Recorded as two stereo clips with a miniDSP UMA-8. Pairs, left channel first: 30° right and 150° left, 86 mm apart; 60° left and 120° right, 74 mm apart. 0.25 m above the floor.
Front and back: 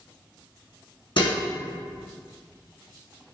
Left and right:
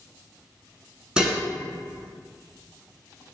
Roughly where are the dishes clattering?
Ahead right.